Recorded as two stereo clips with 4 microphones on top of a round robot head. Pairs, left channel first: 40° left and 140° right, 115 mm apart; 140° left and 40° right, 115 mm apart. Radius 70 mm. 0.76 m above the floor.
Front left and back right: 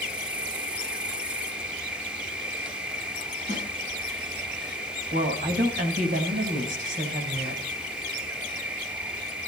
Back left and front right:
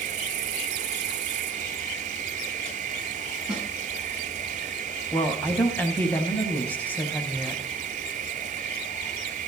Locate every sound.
0.0 s an insect: 55° right, 1.0 m
3.5 s a snare drum: 125° right, 7 m
5.1 s a woman speaking: 145° right, 4.5 m